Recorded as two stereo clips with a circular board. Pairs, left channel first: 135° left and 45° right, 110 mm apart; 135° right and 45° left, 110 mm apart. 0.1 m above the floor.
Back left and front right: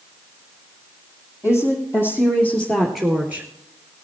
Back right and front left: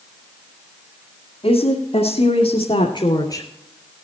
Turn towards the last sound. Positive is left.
turn(degrees=-95)